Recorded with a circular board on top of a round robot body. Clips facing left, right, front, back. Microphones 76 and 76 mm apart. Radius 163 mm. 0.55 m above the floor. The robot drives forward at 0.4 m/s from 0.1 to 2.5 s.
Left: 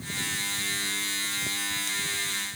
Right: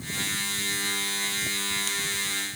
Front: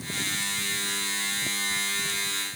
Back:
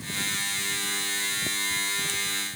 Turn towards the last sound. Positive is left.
No sound to turn to.